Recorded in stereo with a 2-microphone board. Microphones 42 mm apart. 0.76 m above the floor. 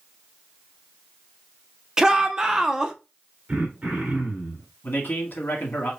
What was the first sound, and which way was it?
A shout, 15° right (ahead or behind).